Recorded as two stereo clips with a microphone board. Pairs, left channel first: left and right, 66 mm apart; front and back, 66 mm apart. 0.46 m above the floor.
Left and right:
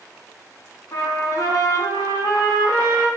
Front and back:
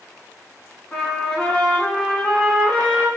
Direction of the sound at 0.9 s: 75° left.